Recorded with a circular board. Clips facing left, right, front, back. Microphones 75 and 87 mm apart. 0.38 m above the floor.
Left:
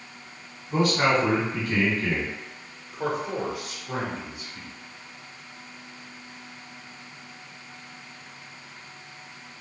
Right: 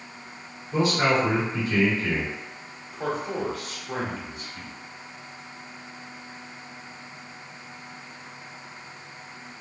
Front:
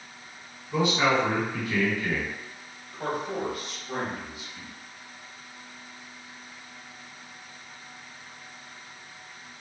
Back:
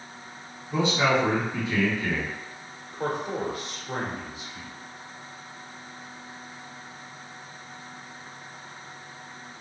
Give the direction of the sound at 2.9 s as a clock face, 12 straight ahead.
7 o'clock.